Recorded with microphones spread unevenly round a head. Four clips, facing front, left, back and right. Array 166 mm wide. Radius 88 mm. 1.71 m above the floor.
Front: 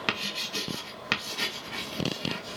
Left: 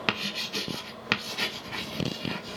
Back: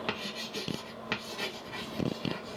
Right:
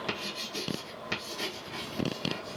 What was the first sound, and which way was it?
Writing, 50° left.